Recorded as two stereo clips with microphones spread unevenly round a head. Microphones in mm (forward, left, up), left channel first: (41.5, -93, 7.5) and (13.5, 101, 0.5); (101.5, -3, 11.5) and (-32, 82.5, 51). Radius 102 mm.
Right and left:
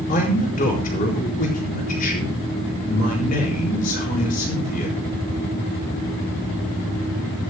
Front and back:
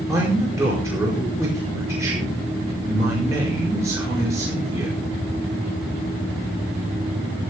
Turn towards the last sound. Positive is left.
turn(degrees=-135)